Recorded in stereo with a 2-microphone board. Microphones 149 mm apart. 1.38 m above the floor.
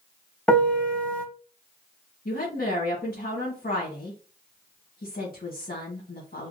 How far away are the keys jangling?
No keys jangling in this recording.